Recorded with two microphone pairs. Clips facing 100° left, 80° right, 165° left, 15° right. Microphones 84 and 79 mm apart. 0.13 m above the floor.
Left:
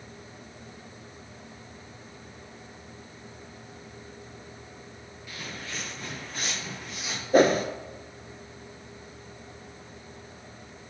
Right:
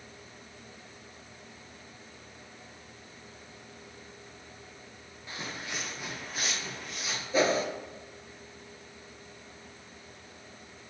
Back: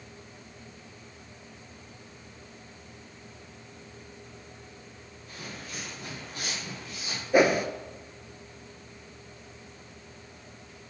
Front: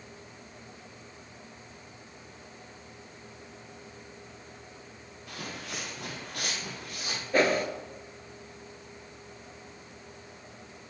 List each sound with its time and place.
5.3 s footsteps: 20° right, 1.1 m; by 7.2 s 15° left, 2.5 m
7.3 s a whoosh: 90° left, 0.6 m